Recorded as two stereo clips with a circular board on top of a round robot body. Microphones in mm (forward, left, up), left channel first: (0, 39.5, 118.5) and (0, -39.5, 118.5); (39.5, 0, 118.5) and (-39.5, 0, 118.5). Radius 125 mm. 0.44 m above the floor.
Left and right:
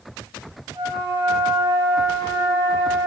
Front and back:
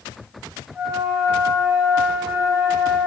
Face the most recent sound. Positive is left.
turn(degrees=-105)